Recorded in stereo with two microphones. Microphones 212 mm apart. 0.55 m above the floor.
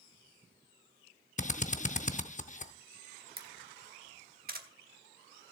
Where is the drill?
35° left (ahead or behind), 0.5 m.